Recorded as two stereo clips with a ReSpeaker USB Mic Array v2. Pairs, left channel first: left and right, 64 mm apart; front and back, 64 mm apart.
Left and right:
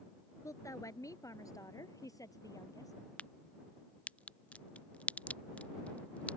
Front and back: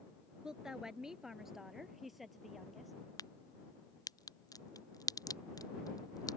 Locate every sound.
0.4 s a woman speaking: 105° left; by 2.9 s 90° left
3.2 s a crack: 20° left